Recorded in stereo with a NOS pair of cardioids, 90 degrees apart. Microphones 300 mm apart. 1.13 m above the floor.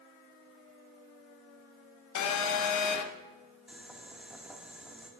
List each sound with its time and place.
2.1 s a phone buzzing: 70° left, 1.1 m
3.7 s boiling: 5° right, 2 m